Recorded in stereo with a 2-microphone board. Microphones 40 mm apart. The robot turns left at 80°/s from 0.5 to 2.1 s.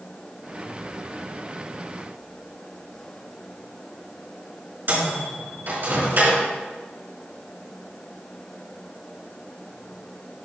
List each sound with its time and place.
4.9 s a microwave: 50° right (ahead or behind), 4.5 m